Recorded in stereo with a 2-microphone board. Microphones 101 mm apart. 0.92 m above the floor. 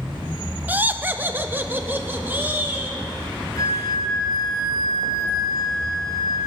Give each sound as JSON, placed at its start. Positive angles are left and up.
{"t": 0.7, "sound": "laughter", "side_deg": -15, "distance_m": 0.5}
{"t": 3.5, "sound": "a flute", "side_deg": 45, "distance_m": 4.5}